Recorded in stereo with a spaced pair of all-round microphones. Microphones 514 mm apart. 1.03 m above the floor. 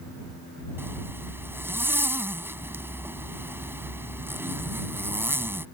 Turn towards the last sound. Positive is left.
turn(degrees=-5)  # may be behind; listen again after turning